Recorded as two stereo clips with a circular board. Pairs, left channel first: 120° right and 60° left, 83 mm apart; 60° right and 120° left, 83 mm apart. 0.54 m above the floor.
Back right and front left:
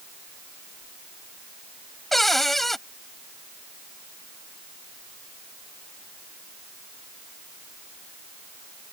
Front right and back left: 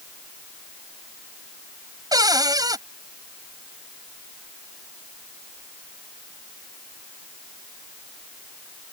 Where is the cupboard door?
150° left.